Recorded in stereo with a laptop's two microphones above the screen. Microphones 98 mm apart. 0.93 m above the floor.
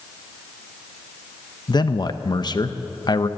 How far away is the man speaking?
About 0.7 m.